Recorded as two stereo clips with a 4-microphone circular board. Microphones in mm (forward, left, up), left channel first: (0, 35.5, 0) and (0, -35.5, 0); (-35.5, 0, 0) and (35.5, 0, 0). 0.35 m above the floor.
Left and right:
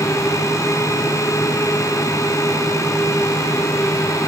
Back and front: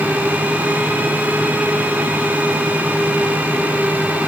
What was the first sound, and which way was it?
Only background noise.